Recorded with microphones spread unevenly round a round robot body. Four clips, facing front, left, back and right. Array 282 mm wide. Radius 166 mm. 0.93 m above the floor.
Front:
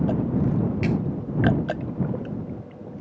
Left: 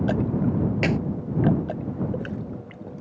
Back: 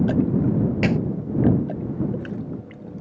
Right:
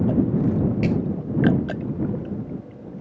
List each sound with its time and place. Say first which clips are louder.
0.8 s a clap: even, back 4 dB; 105° left